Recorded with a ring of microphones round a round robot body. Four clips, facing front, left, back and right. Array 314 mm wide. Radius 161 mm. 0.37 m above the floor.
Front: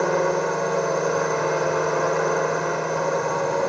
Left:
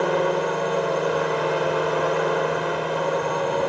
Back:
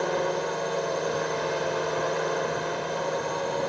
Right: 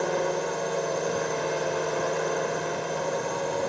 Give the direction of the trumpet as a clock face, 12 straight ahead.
I don't hear a trumpet.